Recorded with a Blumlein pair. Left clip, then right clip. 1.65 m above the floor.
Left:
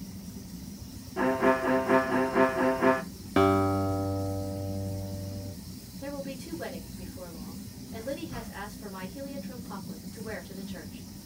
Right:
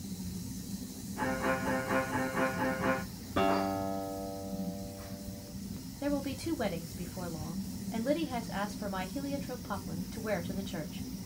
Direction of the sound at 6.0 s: 65° right.